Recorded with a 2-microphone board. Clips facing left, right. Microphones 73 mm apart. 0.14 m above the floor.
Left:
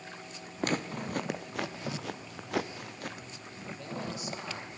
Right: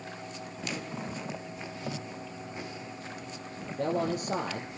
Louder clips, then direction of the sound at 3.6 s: Right 10 dB; 55° right (ahead or behind).